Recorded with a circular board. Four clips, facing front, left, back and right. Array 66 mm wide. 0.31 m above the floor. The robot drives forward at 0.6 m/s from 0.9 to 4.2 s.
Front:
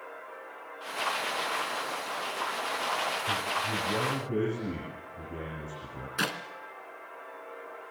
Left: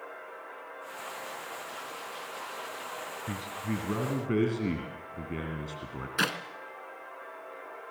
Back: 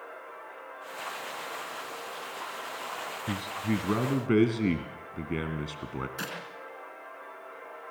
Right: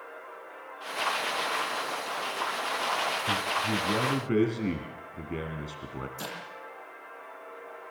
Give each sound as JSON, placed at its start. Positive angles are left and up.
{"t": 3.3, "sound": "a man speaking", "azimuth_deg": -175, "distance_m": 2.0}
{"t": 6.2, "sound": "a clap", "azimuth_deg": 65, "distance_m": 2.5}